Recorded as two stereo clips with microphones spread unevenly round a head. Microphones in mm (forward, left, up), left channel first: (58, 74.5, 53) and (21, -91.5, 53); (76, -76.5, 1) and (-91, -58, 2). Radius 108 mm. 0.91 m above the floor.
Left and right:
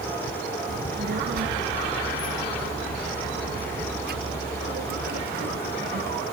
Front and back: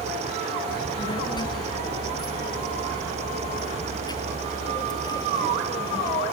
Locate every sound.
0.7 s a child speaking: 70° right; by 6.2 s 75° right